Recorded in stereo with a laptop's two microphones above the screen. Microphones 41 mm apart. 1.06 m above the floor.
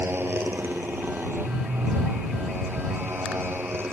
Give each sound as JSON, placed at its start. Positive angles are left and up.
{"t": 0.0, "sound": "a motorcycle", "side_deg": -70}